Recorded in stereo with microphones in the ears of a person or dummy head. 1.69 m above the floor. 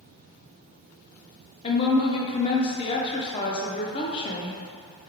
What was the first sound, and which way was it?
A woman speaking, 30° left (ahead or behind).